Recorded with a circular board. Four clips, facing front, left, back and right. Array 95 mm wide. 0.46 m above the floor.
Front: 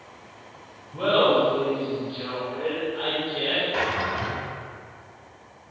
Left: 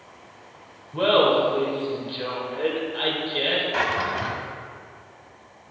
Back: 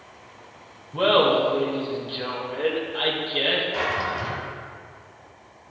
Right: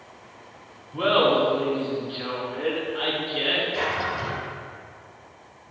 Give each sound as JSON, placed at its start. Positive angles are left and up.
{"t": 0.9, "sound": "laughter", "azimuth_deg": 135, "distance_m": 2.0}
{"t": 3.7, "sound": "a drawer", "azimuth_deg": 75, "distance_m": 1.6}